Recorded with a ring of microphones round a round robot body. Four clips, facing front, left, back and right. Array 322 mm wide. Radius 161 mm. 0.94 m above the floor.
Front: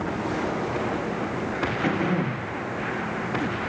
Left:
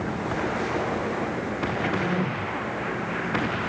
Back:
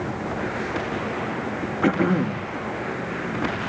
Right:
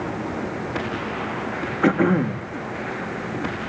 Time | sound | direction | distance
1.8 | throat clearing | 115° right | 1.5 m